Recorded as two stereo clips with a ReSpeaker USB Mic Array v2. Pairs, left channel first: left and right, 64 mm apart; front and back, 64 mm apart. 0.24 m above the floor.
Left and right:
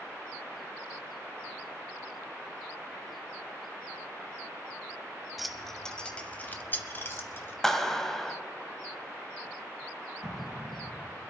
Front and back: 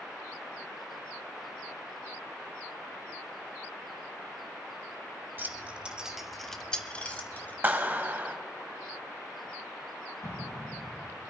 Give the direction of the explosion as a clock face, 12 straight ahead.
12 o'clock.